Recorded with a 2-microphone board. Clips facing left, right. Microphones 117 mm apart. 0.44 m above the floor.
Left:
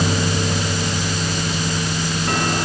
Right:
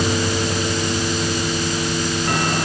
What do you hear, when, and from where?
Only background noise.